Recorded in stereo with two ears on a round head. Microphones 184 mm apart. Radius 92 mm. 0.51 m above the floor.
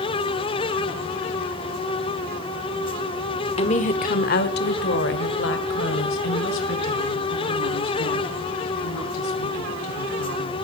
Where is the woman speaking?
30° left (ahead or behind), 1.0 m; by 10.6 s 80° left, 5 m.